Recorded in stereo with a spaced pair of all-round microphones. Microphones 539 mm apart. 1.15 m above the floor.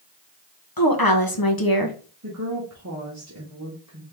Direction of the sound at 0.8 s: 40° left (ahead or behind).